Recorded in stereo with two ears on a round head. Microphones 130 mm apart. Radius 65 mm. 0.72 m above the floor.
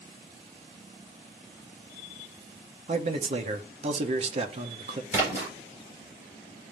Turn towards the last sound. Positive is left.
turn(degrees=-20)  # may be behind; listen again after turning